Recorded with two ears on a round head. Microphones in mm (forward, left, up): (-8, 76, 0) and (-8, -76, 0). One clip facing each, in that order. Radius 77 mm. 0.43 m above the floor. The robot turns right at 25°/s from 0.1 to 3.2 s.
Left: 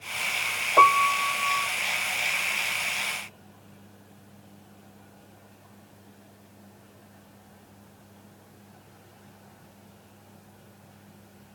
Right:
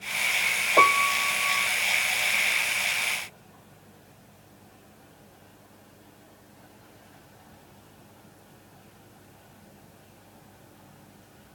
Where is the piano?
15° right (ahead or behind); by 1.7 s 30° right (ahead or behind).